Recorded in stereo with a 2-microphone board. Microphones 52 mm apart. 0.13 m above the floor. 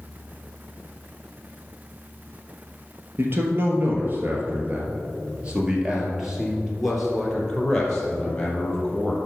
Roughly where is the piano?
I don't hear a piano.